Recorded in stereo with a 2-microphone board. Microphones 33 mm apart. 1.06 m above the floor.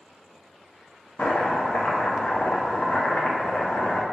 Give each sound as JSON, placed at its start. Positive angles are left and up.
{"t": 1.2, "sound": "chopping", "side_deg": 50, "distance_m": 0.6}